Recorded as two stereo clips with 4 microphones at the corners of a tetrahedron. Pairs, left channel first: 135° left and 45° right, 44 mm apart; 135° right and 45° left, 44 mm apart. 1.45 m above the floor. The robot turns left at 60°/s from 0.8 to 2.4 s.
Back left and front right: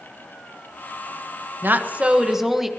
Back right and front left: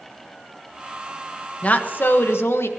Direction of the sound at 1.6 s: 80° right.